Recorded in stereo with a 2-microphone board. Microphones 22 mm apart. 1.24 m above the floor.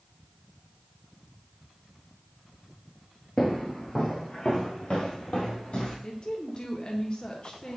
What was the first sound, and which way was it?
Footsteps, 15° left (ahead or behind).